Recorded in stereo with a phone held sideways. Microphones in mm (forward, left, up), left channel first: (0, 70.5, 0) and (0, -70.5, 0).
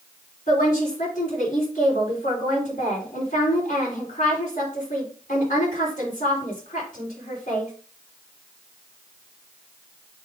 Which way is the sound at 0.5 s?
65° left (ahead or behind).